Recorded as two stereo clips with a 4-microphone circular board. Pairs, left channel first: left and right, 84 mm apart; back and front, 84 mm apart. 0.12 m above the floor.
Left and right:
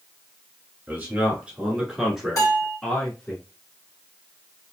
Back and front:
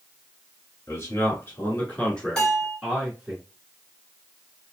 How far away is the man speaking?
About 1.7 m.